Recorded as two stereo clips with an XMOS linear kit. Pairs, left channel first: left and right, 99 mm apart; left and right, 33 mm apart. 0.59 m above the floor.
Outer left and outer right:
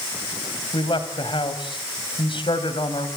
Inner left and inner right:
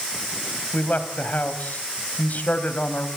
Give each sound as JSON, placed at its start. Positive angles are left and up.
{"t": 0.7, "sound": "a man speaking", "side_deg": 60, "distance_m": 3.0}